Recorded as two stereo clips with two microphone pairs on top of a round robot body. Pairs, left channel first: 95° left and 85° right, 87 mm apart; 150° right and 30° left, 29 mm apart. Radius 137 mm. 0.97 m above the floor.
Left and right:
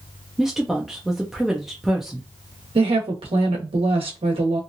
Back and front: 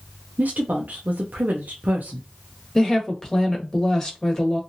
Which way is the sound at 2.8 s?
80° right.